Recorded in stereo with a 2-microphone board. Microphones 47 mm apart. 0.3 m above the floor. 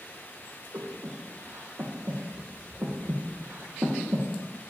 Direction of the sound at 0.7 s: 65° right (ahead or behind).